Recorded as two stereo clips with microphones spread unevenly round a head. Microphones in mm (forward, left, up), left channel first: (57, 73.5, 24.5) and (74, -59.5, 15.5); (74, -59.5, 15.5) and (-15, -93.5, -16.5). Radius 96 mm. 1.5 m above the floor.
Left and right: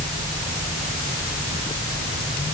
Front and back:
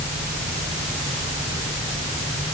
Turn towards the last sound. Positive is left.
No sound to turn to.